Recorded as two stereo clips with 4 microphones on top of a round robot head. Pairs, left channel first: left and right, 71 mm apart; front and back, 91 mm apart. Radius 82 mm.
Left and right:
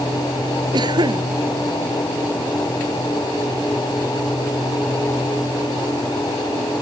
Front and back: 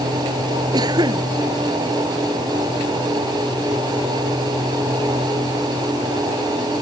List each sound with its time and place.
0.7 s a cough: 125° right